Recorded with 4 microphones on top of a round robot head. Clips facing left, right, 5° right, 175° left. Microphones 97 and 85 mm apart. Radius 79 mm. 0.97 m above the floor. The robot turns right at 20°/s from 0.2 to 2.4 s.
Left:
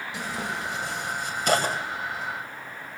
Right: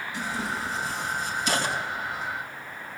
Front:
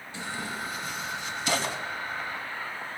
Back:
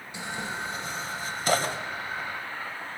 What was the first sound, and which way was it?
Tearing paper, 105° left.